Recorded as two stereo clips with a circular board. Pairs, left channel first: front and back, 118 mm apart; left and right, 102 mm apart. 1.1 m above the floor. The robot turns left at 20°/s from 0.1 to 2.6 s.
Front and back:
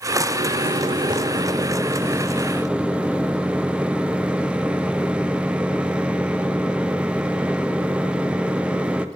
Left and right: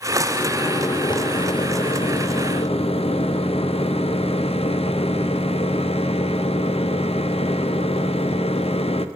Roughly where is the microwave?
Behind left.